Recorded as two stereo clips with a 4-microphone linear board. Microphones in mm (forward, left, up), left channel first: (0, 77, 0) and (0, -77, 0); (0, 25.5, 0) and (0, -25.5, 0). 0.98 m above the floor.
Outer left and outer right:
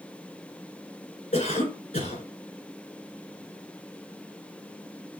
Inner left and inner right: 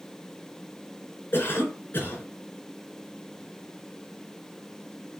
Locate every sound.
1.3 s a cough: 45° left (ahead or behind), 4.5 m